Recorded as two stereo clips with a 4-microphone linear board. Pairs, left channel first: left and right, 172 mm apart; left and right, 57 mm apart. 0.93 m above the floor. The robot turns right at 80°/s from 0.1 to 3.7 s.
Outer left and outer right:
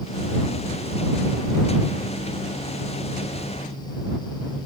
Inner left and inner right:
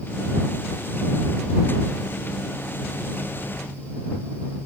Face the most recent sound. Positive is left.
No sound to turn to.